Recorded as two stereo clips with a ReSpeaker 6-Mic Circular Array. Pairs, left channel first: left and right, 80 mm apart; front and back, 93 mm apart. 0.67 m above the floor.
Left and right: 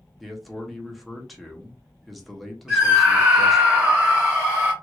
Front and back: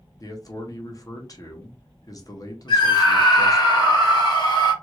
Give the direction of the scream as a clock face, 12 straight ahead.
12 o'clock.